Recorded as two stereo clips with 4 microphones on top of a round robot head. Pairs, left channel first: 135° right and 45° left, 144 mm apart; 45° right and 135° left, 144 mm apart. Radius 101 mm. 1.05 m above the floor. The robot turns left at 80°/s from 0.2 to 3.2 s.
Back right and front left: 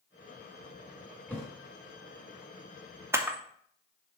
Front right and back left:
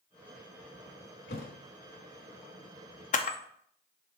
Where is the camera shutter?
25° right, 0.8 m; by 3.4 s 30° right, 0.8 m.